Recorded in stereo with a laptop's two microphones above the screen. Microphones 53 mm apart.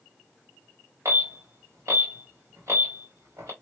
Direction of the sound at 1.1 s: 75° right (ahead or behind).